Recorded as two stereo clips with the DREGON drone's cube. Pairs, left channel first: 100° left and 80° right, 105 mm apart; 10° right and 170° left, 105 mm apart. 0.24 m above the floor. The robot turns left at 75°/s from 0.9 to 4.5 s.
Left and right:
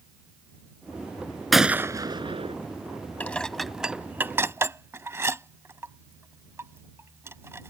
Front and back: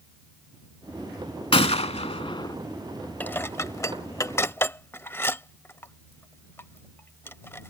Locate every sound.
1.5 s a gunshot: 10° left; by 2.5 s 65° right
3.2 s dishes clattering: 45° left; by 7.7 s 55° right